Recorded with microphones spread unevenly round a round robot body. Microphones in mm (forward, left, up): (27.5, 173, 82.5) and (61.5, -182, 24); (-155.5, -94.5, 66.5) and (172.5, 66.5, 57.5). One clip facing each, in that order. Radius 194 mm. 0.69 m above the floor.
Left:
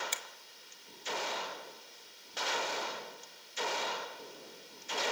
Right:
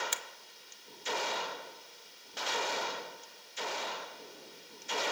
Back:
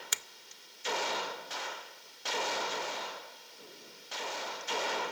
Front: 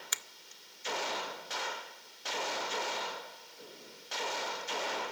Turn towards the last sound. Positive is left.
turn(degrees=-130)